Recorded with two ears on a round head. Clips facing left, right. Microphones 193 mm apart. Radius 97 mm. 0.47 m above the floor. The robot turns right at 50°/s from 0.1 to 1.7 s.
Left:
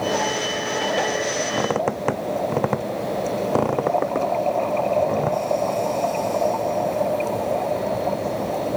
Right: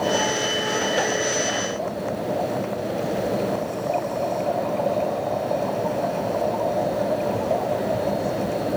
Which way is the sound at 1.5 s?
60° left (ahead or behind).